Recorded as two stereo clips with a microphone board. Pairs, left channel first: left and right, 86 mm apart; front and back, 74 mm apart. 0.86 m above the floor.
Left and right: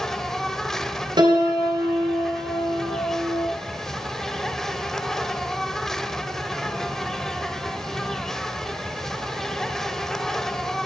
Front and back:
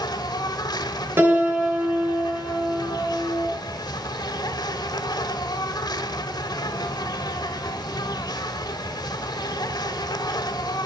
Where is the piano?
120° right, 5 m.